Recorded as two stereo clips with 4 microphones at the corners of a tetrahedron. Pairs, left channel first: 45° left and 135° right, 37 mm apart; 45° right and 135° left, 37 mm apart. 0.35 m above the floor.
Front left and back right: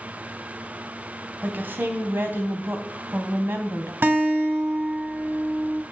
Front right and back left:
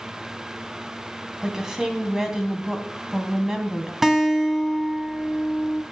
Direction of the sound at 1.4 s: 150° right.